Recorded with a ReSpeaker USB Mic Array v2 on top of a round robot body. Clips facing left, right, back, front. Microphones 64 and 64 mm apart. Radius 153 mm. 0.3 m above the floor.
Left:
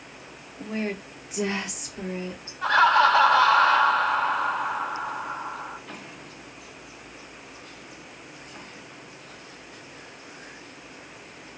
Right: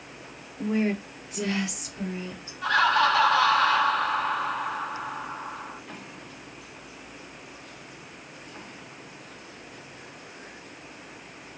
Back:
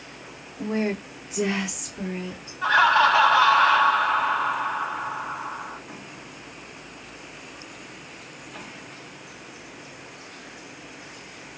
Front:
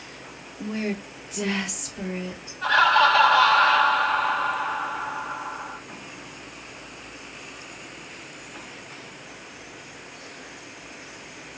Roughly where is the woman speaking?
Behind right.